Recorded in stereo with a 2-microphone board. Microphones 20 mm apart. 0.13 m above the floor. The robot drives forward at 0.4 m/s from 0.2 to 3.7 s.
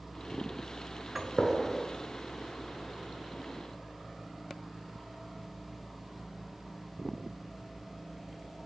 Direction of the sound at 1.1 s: 20° right (ahead or behind).